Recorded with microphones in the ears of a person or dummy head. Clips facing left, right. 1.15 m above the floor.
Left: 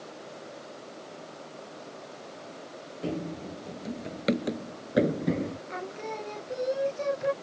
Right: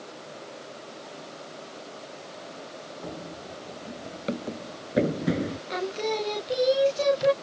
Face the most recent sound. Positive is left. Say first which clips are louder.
# right 8 dB
turn(degrees=-45)  # may be behind; listen again after turning